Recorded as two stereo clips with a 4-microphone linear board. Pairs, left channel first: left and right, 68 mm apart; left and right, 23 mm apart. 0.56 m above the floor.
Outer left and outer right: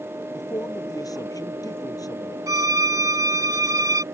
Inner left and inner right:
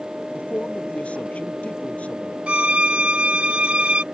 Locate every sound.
0.3 s a man speaking: 60° left (ahead or behind)
2.5 s a violin: 60° right (ahead or behind)